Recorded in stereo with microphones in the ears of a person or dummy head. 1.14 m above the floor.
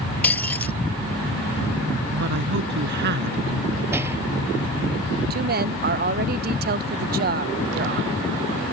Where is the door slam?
10° right (ahead or behind).